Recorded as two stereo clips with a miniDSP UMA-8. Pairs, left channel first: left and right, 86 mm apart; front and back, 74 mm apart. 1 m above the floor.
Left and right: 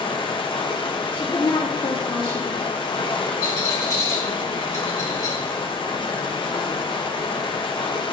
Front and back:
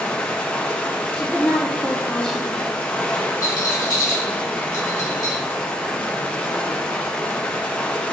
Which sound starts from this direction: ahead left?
A rattle, at 3.4 s.